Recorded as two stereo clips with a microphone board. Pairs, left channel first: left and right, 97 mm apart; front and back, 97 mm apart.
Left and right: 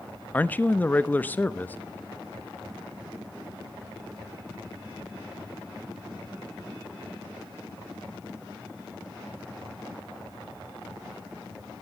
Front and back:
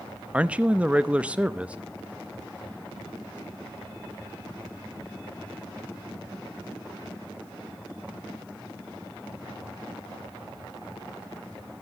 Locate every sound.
0.3 s a man speaking: 125° left, 0.6 m